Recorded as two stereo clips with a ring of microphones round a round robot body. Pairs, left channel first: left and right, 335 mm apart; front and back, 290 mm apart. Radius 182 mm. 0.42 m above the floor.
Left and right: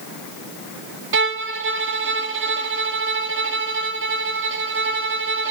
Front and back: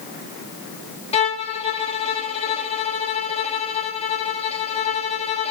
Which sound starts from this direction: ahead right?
A violin, at 1.1 s.